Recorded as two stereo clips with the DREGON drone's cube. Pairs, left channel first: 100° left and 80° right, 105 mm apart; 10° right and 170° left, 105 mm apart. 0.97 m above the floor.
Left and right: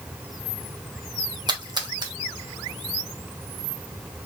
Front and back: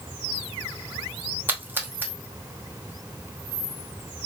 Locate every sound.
1.5 s a splash: 120° right, 0.7 m